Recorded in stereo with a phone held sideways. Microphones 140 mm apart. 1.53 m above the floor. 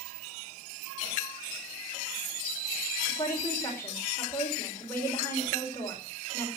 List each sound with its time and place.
3.1 s a woman speaking: 15° left (ahead or behind), 4.5 m